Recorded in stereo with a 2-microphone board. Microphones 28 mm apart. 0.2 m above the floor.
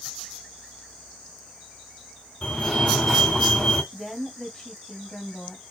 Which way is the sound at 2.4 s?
15° left (ahead or behind).